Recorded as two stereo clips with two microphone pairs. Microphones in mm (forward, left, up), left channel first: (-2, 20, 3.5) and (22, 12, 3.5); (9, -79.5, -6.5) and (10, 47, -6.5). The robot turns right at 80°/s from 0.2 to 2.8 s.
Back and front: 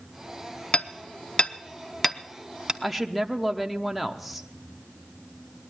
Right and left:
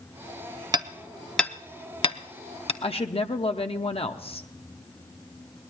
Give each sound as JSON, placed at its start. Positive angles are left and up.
{"t": 0.7, "sound": "hammering", "azimuth_deg": 135, "distance_m": 0.8}
{"t": 2.8, "sound": "a woman speaking", "azimuth_deg": -105, "distance_m": 0.9}